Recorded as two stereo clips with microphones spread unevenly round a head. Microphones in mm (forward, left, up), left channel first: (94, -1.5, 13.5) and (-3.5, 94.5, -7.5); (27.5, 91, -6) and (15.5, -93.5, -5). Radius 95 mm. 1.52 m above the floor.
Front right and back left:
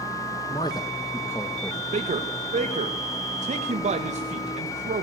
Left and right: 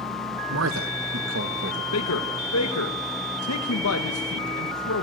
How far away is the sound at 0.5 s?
About 1.3 m.